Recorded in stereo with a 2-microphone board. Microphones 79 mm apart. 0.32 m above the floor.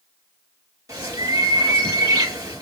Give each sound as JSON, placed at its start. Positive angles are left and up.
{"t": 0.9, "sound": "a bird", "side_deg": -45, "distance_m": 4.0}